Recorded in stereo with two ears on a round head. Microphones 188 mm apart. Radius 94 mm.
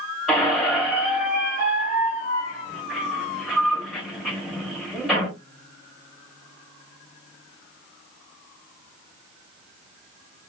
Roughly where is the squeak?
Centre.